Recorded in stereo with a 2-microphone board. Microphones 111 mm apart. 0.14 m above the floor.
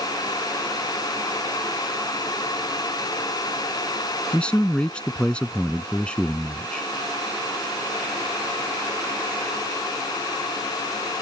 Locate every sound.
4.3 s a man speaking: 10° left (ahead or behind)